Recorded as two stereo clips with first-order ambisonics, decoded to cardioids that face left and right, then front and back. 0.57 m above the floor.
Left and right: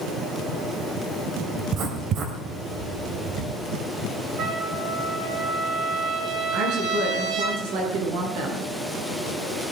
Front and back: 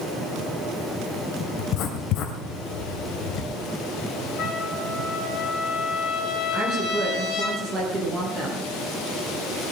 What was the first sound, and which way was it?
Writing, 40° right.